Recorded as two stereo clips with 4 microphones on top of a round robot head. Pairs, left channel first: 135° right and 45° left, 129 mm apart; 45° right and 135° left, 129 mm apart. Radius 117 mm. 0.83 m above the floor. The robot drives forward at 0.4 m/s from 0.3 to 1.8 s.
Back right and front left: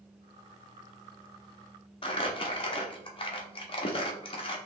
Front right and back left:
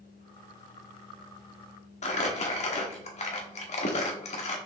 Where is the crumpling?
85° right, 0.8 m.